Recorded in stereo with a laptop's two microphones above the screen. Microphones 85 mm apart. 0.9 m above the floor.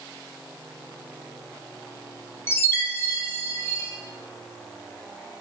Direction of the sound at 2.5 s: 30° left (ahead or behind).